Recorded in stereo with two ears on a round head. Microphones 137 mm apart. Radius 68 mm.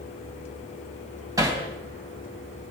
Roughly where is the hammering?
Right.